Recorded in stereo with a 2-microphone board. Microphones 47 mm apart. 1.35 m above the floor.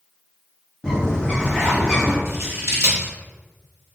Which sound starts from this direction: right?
Scissors, at 2.2 s.